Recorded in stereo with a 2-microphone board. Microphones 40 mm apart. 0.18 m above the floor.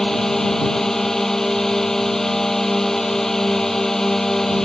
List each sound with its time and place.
0.0 s a drone: 10° left (ahead or behind)